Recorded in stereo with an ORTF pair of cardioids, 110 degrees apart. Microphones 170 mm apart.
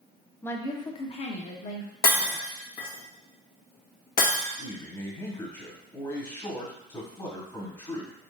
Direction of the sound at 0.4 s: 10° left.